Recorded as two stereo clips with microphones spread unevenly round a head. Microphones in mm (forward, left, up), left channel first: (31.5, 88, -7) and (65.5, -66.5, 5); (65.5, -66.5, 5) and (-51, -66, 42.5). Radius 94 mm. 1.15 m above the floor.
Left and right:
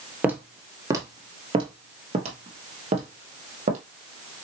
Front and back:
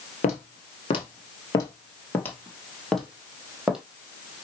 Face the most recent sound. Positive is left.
turn(degrees=-115)